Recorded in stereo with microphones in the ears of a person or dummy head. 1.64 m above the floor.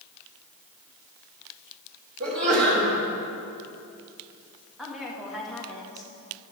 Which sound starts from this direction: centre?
A woman speaking, at 4.8 s.